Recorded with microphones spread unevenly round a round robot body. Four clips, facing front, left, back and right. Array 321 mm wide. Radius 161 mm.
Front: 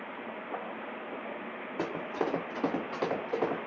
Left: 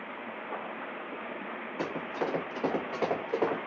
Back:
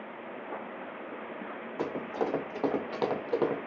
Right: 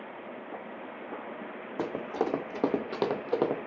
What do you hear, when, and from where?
1.8 s running footsteps: 60° right, 1.4 m; by 3.7 s 135° right, 0.8 m